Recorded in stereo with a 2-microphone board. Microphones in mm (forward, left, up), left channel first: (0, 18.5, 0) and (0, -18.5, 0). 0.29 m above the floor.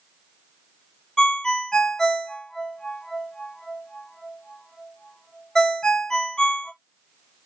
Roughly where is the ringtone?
Centre.